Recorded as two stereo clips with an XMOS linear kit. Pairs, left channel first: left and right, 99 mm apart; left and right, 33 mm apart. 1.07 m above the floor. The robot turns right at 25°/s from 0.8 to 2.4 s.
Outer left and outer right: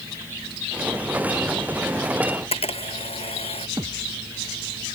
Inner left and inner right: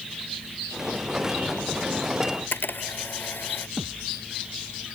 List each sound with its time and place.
2.3 s a camera shutter: 80° left; by 3.7 s 85° left
3.8 s a thud: 35° right (ahead or behind)